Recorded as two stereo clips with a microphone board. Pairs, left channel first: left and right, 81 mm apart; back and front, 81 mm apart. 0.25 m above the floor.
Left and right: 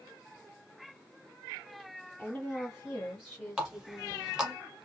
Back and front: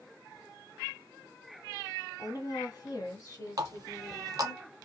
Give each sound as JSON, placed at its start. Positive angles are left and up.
{"t": 2.2, "sound": "a woman speaking", "azimuth_deg": 155, "distance_m": 1.5}
{"t": 3.6, "sound": "a running tap", "azimuth_deg": -5, "distance_m": 1.0}